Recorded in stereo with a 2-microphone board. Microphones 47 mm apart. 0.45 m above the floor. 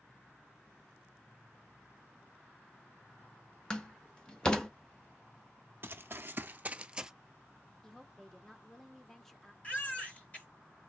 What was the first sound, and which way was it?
A door slam, 20° left (ahead or behind).